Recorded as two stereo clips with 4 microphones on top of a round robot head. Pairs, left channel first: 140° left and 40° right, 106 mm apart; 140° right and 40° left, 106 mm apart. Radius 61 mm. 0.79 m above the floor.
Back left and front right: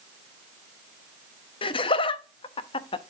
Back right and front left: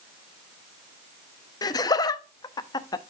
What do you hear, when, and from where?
1.6 s laughter: 170° left, 0.8 m